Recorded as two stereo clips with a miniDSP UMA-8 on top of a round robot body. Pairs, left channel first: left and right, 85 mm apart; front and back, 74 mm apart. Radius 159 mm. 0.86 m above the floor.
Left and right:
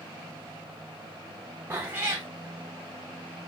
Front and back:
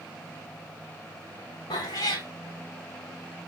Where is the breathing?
No breathing in this recording.